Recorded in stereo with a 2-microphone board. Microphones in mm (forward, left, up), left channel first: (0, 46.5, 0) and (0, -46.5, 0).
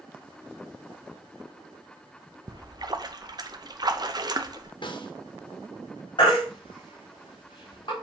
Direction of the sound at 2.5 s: 45° right (ahead or behind).